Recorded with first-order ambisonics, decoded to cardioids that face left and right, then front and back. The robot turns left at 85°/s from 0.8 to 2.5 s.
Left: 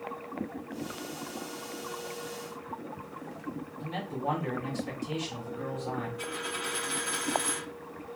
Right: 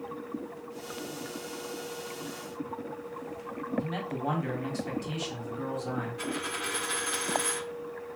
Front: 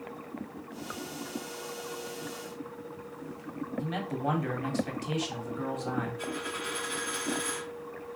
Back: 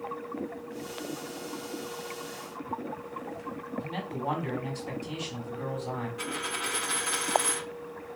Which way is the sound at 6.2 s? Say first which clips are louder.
Right 1 dB, back 2 dB; 155° right.